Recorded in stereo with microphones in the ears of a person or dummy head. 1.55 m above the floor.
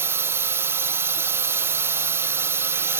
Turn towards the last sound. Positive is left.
turn(degrees=-15)  # may be behind; listen again after turning